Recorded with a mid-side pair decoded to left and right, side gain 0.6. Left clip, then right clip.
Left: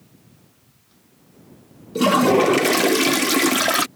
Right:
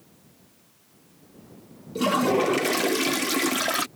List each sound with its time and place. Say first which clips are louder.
1.9 s a toilet flushing: left 6 dB; 30° left